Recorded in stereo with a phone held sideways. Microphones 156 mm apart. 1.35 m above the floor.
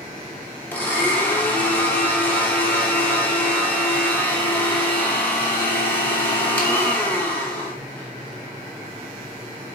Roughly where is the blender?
Centre.